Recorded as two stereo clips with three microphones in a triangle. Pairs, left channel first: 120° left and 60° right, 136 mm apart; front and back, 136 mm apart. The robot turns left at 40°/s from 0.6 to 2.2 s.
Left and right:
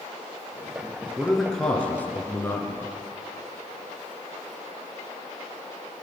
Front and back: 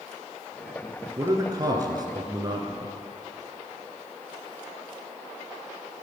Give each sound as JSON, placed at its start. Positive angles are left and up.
{"t": 1.2, "sound": "a man speaking", "azimuth_deg": -145, "distance_m": 1.9}